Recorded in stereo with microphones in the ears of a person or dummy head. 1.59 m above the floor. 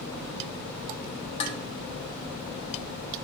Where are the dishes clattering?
35° left (ahead or behind), 1.1 m.